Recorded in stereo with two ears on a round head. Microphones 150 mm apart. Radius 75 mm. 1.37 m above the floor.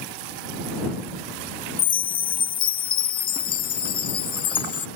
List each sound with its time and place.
1.8 s a chime: 30° left (ahead or behind)